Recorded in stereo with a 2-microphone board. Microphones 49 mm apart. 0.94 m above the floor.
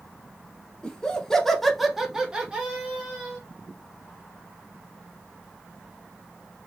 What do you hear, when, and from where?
0.8 s laughter: 15° left (ahead or behind), 0.8 m; by 3.4 s 30° right (ahead or behind), 0.9 m